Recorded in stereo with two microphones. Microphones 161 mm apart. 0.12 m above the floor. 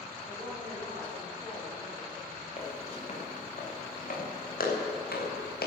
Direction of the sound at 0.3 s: 20° left (ahead or behind).